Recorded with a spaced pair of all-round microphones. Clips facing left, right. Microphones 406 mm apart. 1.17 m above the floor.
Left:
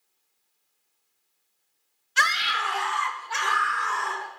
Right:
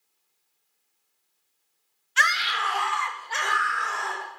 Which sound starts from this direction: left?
A scream, at 2.2 s.